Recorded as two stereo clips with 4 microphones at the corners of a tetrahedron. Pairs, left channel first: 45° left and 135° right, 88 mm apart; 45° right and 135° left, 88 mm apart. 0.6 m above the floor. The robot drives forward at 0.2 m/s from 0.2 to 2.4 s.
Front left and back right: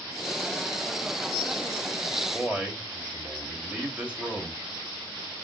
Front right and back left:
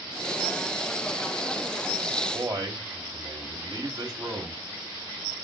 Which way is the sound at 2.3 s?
155° left.